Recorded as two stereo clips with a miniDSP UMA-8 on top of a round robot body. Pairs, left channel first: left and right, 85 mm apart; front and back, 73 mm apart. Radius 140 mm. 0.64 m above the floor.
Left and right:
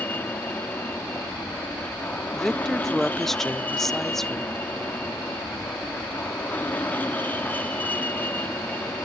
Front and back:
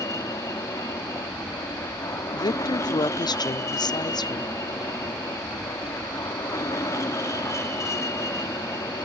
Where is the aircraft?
25° left.